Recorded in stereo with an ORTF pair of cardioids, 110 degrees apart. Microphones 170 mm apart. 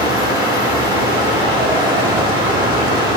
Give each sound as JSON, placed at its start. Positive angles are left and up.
{"t": 0.0, "sound": "a fan", "azimuth_deg": -30, "distance_m": 4.0}